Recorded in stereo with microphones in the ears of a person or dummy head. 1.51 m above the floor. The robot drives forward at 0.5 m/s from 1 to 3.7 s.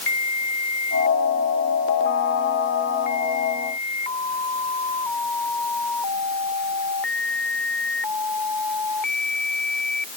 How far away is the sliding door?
No sliding door in this recording.